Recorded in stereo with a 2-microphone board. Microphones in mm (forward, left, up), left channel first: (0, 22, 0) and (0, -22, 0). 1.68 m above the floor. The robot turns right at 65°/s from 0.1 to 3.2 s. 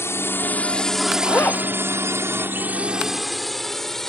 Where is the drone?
75° left (ahead or behind); by 4.1 s 10° left (ahead or behind).